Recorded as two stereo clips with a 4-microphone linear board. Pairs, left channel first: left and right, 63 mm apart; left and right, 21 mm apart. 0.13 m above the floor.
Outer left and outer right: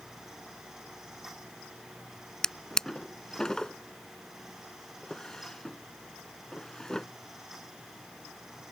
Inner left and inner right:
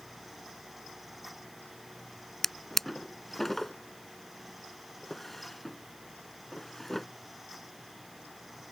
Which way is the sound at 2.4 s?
10° left (ahead or behind).